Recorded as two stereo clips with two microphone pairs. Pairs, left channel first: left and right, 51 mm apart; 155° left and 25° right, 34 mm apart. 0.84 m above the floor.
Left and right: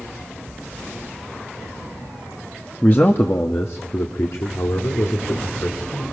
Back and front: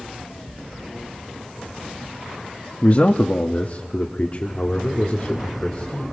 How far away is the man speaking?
About 1.1 m.